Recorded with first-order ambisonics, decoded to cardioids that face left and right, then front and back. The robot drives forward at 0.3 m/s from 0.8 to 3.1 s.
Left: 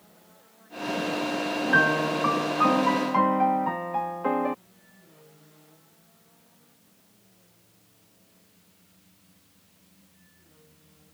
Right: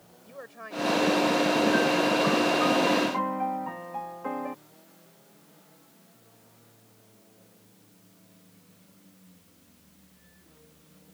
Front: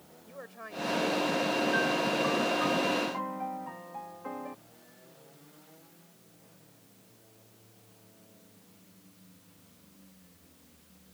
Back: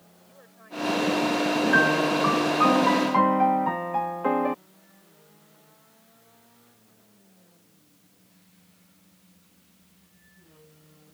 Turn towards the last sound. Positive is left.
turn(degrees=150)